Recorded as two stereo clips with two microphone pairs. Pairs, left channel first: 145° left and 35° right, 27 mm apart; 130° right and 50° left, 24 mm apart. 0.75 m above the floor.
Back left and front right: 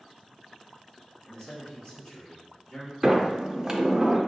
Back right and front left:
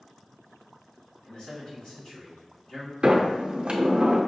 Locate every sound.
1.2 s a man speaking: 160° right, 1.9 m
3.0 s a sliding door: 30° left, 0.6 m